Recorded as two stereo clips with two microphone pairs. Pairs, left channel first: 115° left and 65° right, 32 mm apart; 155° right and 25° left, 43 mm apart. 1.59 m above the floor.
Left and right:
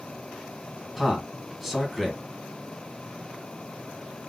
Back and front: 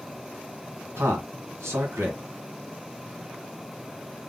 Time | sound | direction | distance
1.0 | a man speaking | 20° left | 1.8 m